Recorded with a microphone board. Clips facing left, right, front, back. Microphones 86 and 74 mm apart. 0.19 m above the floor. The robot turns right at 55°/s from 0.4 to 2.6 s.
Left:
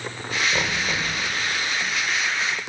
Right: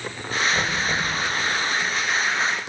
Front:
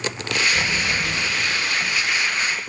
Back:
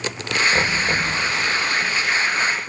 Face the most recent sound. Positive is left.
turn(degrees=-110)